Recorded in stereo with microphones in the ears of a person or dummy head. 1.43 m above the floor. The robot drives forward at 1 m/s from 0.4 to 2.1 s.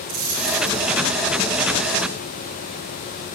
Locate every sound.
0.1 s a dropped coin: 50° right (ahead or behind), 4.5 m; by 0.8 s 45° right (ahead or behind), 5 m